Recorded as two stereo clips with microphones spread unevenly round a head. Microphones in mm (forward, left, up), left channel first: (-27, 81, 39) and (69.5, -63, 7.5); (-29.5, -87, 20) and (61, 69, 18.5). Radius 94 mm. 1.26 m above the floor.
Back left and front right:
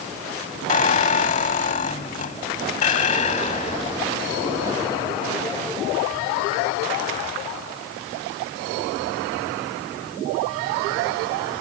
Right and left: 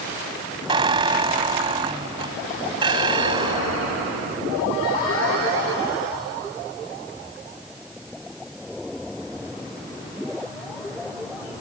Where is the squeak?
120° left.